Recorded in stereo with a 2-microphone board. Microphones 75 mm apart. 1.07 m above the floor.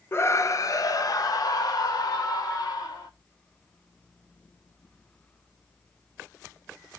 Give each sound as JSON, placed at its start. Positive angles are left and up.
{"t": 0.1, "sound": "a scream", "side_deg": 35, "distance_m": 0.5}